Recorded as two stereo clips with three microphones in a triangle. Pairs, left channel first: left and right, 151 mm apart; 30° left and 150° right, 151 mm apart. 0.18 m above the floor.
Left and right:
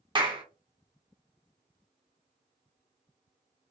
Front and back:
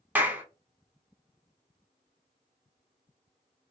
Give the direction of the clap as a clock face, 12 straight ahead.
3 o'clock.